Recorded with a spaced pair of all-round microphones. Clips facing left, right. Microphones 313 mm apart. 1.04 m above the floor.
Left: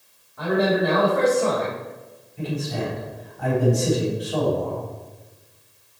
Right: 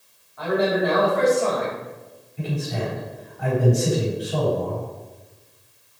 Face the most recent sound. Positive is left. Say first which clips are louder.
# left 1 dB
turn(degrees=0)  # may be behind; listen again after turning